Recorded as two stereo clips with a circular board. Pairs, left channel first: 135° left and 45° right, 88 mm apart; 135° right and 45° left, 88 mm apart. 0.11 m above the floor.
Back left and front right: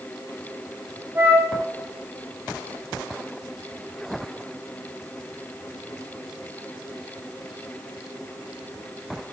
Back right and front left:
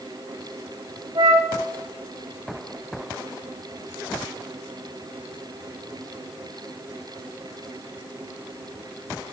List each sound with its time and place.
1.1 s a flute: 20° left, 5 m